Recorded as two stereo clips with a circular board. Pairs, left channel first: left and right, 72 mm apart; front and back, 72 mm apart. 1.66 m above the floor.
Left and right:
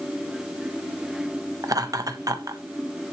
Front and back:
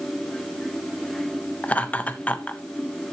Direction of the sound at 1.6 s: 65° right.